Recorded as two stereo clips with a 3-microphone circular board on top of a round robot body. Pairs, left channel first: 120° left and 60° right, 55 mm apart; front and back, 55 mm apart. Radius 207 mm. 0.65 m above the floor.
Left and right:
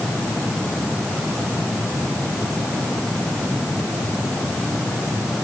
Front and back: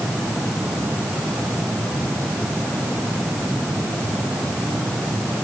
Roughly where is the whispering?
No whispering in this recording.